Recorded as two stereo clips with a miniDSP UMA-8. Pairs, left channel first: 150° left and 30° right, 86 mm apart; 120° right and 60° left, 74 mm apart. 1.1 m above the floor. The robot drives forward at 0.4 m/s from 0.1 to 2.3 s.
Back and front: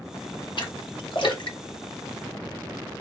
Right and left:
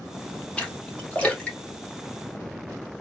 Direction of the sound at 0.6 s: 165° left.